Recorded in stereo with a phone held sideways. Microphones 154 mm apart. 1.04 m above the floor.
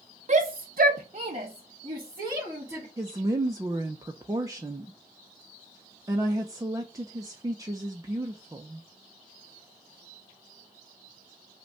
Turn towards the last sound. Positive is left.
turn(degrees=-25)  # may be behind; listen again after turning